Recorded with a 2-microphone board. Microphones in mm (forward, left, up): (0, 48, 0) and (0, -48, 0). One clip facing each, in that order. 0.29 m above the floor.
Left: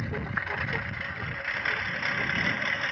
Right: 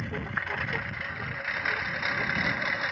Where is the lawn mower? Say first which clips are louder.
Left 1 dB; 5° left (ahead or behind); by 2.9 s 5° right (ahead or behind).